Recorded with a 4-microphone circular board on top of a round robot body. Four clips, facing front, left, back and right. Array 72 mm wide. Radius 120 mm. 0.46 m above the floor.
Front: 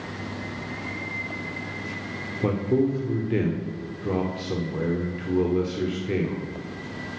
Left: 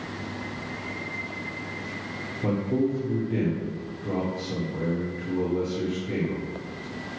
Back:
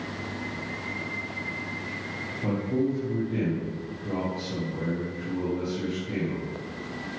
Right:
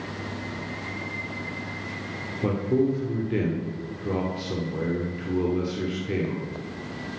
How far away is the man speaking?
About 2 m.